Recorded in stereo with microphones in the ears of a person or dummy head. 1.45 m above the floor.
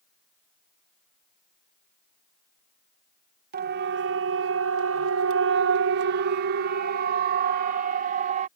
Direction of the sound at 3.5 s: 50° right (ahead or behind).